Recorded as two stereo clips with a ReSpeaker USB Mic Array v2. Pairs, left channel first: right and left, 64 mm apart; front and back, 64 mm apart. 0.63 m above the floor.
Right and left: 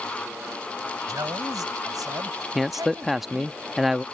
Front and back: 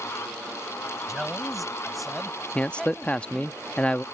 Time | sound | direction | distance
1.1 | a man speaking | 90° left | ?
2.5 | a man speaking | 15° left | ?